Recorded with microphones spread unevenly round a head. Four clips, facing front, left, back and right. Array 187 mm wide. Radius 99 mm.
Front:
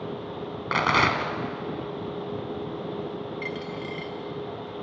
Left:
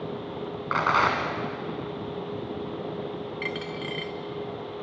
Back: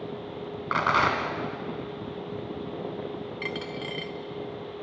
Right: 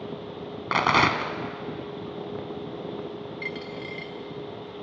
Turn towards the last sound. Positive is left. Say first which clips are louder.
# left 2 dB, front 1 dB
turn(degrees=165)